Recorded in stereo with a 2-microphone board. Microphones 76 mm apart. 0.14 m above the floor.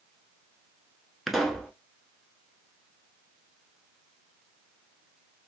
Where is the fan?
I don't hear a fan.